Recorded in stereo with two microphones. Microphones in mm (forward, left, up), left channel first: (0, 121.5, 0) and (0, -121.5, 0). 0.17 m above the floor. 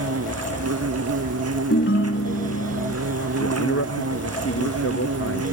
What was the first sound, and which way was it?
An insect, 85° right.